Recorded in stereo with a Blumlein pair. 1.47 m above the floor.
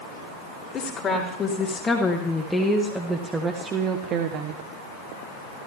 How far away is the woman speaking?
About 2 m.